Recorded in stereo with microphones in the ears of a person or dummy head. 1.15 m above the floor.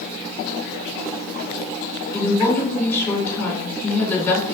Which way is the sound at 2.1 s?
10° left (ahead or behind).